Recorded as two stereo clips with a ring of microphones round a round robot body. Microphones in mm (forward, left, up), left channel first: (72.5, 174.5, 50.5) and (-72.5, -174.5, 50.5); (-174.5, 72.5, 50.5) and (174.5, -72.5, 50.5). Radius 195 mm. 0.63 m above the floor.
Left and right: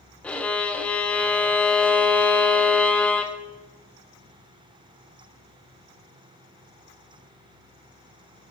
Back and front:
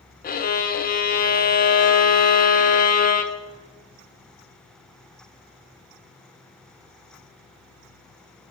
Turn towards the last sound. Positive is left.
turn(degrees=150)